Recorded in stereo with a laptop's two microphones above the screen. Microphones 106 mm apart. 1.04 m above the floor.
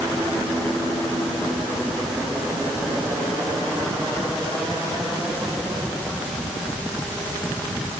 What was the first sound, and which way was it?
Only background noise.